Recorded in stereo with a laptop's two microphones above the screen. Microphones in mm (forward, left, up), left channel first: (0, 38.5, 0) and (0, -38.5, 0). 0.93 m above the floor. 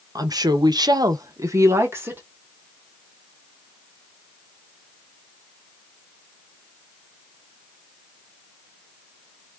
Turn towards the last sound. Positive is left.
turn(degrees=-30)  # may be behind; listen again after turning